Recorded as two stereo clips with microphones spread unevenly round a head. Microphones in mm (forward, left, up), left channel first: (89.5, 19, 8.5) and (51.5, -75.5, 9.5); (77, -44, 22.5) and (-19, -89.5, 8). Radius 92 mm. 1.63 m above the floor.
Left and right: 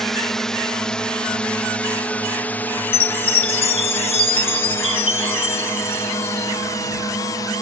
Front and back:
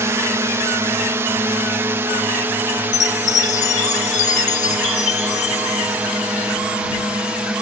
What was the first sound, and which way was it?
A drone, 155° left.